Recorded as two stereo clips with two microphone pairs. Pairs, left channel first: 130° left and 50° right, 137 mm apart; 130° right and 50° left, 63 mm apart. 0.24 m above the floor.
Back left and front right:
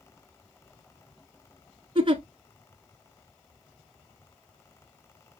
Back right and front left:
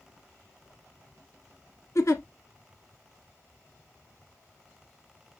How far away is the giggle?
About 0.9 m.